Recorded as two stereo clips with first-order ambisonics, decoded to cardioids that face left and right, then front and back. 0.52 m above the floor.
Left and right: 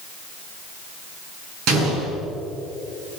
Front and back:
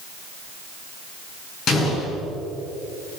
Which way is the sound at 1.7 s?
55° right.